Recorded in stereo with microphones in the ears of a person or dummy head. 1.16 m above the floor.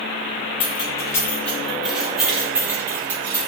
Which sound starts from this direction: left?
Keys jangling, at 0.6 s.